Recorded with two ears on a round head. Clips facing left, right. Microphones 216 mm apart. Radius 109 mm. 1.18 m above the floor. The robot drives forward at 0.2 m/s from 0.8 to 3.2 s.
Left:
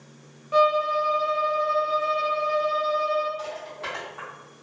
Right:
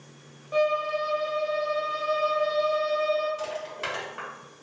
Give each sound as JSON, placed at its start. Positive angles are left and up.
{"t": 0.5, "sound": "a violin", "side_deg": 20, "distance_m": 0.7}
{"t": 3.4, "sound": "crushing", "side_deg": -65, "distance_m": 1.5}